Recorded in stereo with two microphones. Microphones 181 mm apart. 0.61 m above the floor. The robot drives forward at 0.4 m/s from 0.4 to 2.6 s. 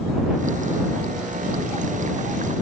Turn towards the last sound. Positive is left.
No sound to turn to.